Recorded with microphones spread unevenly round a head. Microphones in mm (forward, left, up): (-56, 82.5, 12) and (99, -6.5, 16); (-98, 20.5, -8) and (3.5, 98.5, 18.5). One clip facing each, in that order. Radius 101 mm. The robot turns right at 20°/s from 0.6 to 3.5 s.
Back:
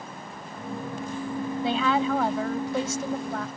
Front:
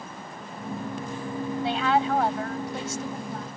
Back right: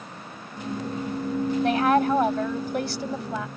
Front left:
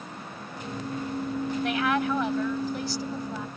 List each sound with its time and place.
1.6 s a woman speaking: 160° left; by 3.5 s 160° right